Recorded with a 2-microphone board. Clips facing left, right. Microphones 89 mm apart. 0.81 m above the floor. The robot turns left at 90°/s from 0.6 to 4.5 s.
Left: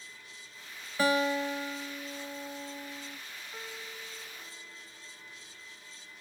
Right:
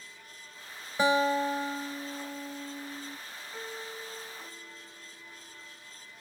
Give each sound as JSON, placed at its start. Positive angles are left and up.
{"t": 1.0, "sound": "a guitar", "azimuth_deg": -35, "distance_m": 0.7}
{"t": 3.5, "sound": "a piano", "azimuth_deg": -15, "distance_m": 2.5}